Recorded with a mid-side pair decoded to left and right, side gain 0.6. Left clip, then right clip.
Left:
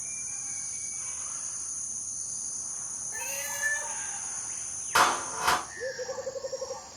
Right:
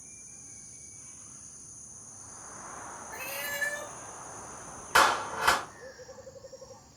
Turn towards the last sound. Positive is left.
turn(degrees=-15)